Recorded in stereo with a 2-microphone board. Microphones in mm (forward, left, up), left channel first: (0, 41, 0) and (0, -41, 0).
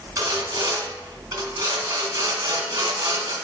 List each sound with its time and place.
0.2 s sawing: 40° right (ahead or behind), 2.5 m